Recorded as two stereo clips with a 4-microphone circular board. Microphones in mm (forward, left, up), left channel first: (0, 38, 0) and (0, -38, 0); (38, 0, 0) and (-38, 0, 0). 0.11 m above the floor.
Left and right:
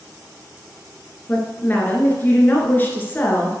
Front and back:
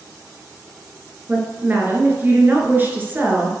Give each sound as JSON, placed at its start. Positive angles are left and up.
{"t": 1.3, "sound": "a woman speaking", "azimuth_deg": 135, "distance_m": 1.7}